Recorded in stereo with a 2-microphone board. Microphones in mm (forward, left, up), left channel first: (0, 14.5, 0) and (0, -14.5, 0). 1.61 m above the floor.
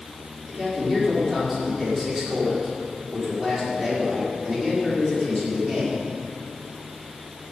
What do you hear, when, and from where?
0.5 s a man speaking: 5° right (ahead or behind), 4.5 m